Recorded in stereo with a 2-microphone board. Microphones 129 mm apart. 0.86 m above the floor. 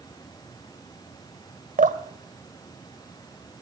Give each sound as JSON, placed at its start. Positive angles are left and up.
{"t": 1.8, "sound": "dripping", "side_deg": -70, "distance_m": 1.7}